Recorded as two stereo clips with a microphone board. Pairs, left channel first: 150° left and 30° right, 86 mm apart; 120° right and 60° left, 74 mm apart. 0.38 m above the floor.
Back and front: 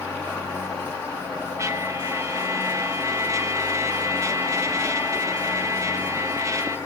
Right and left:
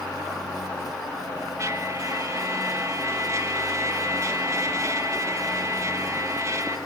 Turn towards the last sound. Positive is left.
turn(degrees=20)